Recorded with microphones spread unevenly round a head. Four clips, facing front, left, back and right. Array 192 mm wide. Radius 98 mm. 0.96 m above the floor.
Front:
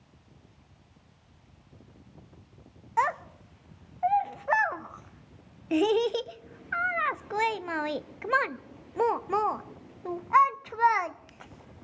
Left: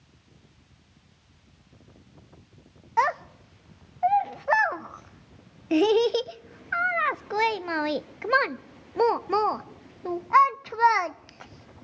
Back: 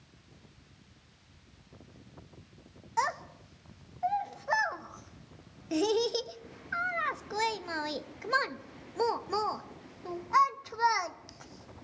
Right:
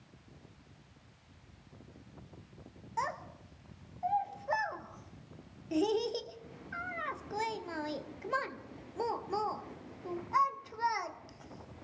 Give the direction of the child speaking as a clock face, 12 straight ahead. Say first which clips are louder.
Left 13 dB, front 4 dB; 9 o'clock.